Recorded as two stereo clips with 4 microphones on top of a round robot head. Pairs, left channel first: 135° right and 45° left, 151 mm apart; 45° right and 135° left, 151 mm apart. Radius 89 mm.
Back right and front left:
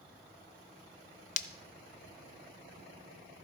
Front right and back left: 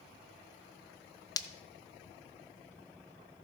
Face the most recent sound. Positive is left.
turn(degrees=-110)